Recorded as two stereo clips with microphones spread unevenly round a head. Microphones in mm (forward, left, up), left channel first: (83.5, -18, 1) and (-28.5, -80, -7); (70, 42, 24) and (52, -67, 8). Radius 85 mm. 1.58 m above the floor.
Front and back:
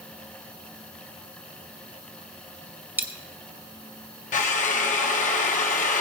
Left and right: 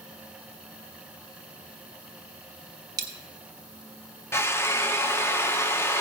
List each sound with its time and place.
3.0 s a dropped coin: 95° right, 0.9 m
4.3 s a drill: 15° left, 1.1 m